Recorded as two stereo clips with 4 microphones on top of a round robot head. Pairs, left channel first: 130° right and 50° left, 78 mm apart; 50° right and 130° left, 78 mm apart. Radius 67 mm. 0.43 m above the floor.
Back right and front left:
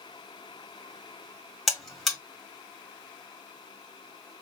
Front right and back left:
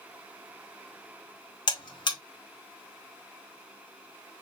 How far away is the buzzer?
About 1.8 m.